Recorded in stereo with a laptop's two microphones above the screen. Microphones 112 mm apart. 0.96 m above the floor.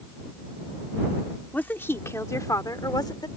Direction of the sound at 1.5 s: 15° left (ahead or behind).